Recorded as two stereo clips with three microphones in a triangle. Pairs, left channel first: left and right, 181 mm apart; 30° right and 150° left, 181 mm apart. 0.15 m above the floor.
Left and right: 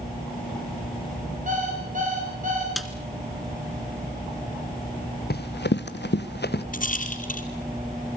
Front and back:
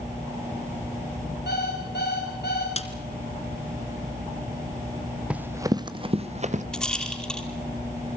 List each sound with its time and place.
1.5 s an alarm clock: 50° right, 9.5 m
2.8 s a snare drum: straight ahead, 2 m
5.3 s running footsteps: 65° left, 1.3 m; by 6.6 s 105° left, 1.9 m
6.7 s a rattle: 55° left, 4.5 m